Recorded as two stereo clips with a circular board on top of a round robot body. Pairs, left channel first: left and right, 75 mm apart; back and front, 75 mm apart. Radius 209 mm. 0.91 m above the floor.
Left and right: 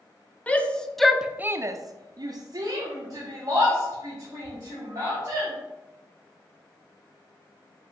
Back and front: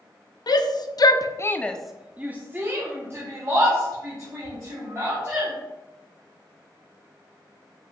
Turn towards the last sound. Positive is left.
turn(degrees=-45)